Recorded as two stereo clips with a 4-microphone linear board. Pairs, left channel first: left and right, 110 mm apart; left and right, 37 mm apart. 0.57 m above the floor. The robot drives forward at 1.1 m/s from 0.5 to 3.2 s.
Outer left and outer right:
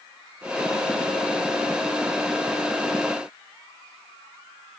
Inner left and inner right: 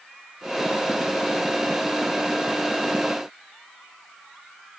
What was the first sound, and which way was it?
Only background noise.